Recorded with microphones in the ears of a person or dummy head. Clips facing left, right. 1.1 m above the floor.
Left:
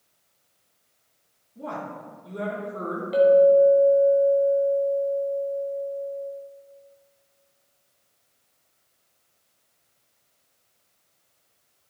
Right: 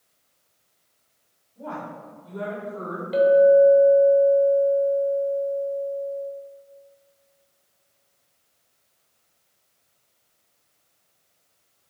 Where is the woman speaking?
35° left (ahead or behind), 3 m.